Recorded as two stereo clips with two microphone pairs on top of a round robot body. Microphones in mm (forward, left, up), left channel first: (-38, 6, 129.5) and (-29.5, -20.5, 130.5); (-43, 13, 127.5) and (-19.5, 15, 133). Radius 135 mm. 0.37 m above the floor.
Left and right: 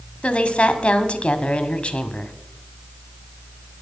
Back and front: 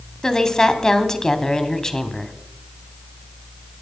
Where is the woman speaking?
140° left, 1.8 m.